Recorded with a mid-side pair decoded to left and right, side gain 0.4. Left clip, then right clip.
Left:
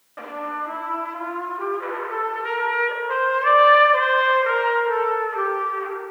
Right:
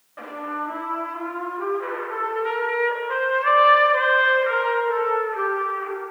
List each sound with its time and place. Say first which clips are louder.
0.2 s a trumpet: left 1 dB; 30° left, 1.2 m